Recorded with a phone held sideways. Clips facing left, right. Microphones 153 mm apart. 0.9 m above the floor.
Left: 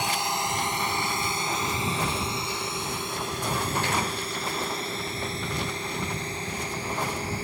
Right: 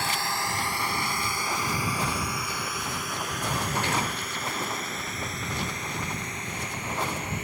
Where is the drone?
20° left (ahead or behind); by 7.4 s 30° left (ahead or behind).